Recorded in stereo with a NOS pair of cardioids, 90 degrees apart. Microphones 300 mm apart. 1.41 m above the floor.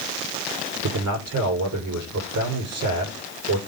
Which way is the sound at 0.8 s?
70° right.